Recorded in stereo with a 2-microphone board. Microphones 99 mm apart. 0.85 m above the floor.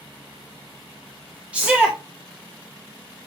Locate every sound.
1.5 s a shout: 10° right (ahead or behind), 0.6 m